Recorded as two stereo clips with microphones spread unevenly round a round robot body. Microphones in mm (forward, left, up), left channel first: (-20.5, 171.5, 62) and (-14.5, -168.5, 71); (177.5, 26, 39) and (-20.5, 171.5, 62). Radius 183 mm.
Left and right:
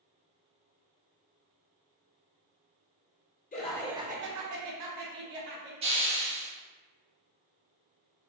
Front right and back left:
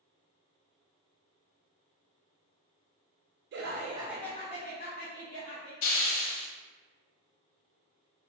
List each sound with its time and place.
3.5 s laughter: 140° left, 0.7 m; by 5.7 s 75° right, 1.6 m
5.8 s a hiss: 20° right, 0.6 m